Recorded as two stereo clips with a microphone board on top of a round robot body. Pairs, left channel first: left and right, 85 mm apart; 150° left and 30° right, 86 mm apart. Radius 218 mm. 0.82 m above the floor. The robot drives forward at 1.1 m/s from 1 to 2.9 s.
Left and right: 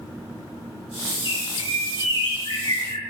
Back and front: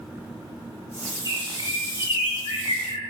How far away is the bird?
About 3 m.